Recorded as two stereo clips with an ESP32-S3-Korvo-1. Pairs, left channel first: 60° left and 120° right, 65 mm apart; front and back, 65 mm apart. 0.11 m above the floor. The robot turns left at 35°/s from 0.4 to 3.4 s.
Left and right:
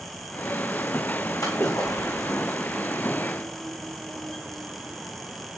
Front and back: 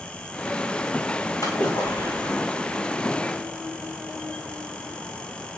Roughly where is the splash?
Ahead left.